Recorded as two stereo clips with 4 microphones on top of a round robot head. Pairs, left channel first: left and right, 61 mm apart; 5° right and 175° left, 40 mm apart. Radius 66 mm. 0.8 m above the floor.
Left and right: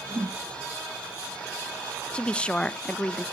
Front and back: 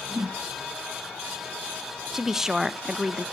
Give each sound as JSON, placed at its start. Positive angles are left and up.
{"t": 0.1, "sound": "a whoosh", "azimuth_deg": -135, "distance_m": 0.9}
{"t": 2.1, "sound": "a woman speaking", "azimuth_deg": 120, "distance_m": 0.6}